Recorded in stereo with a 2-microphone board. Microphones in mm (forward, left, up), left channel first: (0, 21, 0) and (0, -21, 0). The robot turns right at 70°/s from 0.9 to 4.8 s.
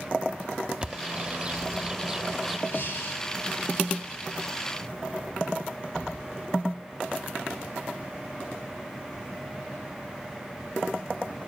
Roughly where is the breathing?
Ahead left.